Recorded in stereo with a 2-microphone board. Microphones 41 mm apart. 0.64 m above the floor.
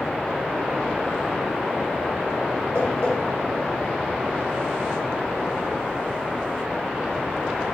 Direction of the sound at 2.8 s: 50° left (ahead or behind).